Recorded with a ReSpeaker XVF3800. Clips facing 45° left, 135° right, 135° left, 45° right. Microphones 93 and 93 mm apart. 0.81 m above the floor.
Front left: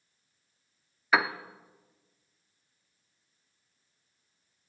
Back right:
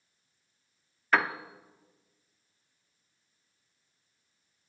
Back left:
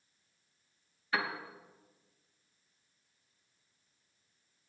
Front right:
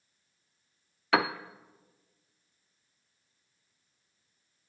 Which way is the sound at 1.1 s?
40° right.